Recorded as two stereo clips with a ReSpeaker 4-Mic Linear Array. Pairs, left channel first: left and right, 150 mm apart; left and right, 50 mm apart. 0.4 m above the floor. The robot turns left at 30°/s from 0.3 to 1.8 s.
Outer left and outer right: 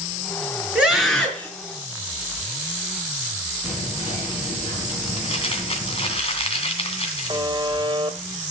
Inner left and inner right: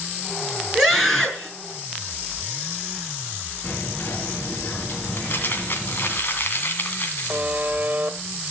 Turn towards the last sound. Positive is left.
turn(degrees=-35)  # may be behind; listen again after turning